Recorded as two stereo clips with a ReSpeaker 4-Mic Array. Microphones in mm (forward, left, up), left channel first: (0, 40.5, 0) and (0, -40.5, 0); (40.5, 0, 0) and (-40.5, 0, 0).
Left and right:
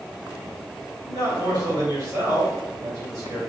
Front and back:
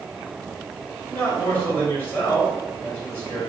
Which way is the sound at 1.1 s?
65° right.